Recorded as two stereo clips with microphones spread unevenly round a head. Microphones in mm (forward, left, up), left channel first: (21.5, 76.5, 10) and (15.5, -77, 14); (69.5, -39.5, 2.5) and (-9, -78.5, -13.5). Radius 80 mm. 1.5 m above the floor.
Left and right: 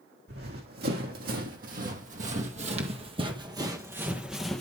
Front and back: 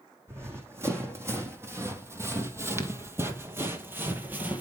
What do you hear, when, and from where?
0.3 s running footsteps: 90° right, 3 m; by 4.6 s 160° left, 1.5 m